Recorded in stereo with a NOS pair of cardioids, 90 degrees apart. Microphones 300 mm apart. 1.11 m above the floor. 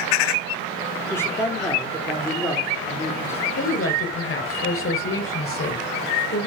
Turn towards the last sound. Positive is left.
turn(degrees=50)